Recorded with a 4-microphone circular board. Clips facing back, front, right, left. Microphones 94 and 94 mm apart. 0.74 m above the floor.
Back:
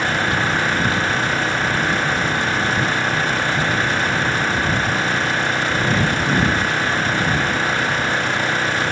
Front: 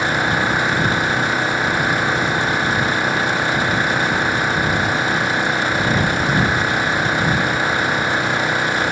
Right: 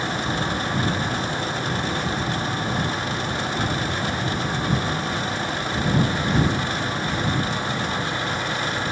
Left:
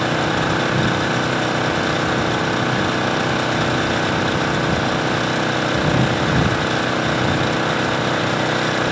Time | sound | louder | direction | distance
0.0 | an engine running | front 1 dB, left 7 dB | 80° left | ?